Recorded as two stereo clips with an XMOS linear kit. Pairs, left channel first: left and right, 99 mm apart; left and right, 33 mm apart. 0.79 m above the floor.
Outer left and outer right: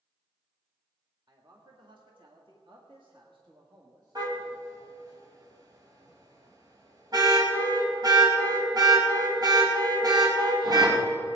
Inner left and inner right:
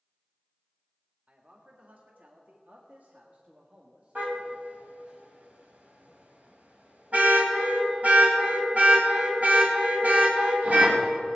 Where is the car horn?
45° right (ahead or behind), 2.5 m.